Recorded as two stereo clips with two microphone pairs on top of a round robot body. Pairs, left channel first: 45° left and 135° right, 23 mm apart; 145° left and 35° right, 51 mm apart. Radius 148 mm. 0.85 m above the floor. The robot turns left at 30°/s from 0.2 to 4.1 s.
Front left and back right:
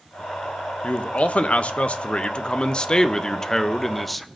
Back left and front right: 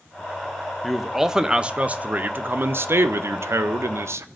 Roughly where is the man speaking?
Ahead left.